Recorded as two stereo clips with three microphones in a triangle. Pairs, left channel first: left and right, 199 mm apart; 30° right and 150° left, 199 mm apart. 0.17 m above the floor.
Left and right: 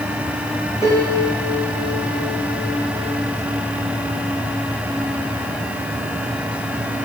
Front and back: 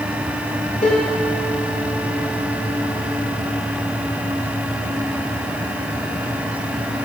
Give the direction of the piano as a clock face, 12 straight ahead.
11 o'clock.